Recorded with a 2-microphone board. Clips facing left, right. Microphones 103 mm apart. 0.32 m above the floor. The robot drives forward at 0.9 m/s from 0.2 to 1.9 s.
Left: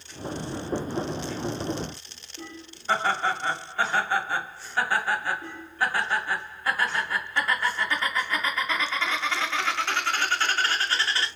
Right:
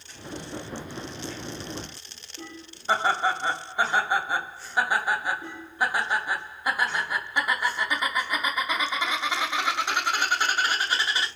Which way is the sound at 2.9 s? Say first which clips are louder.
Right 1 dB; 15° right (ahead or behind).